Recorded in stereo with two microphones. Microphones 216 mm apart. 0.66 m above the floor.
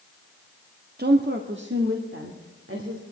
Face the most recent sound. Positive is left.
turn(degrees=-75)  # may be behind; listen again after turning